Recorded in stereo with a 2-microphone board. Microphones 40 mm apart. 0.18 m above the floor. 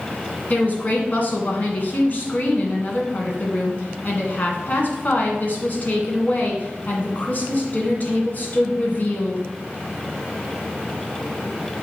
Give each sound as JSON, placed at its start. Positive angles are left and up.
{"t": 0.5, "sound": "a woman speaking", "side_deg": 45, "distance_m": 1.8}